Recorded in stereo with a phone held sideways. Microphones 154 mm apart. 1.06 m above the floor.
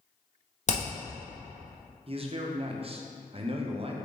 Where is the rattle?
I don't hear a rattle.